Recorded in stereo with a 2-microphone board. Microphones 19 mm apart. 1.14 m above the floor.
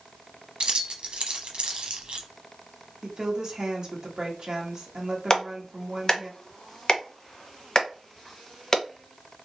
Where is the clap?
35° left (ahead or behind), 0.8 m.